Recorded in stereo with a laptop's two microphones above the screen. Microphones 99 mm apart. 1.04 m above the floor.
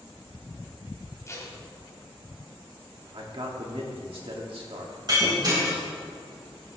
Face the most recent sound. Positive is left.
turn(degrees=-45)  # may be behind; listen again after turning